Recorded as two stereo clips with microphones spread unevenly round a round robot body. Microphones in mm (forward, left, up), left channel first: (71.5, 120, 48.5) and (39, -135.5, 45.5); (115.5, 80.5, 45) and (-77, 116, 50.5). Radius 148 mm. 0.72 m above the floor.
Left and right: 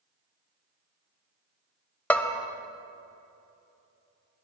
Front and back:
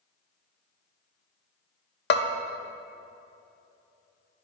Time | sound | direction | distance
2.1 | a bell | straight ahead | 0.7 m